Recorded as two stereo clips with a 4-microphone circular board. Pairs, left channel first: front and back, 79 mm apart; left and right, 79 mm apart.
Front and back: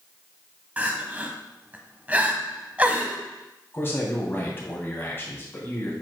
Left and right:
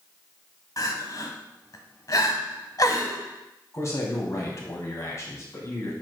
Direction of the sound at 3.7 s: 50° left.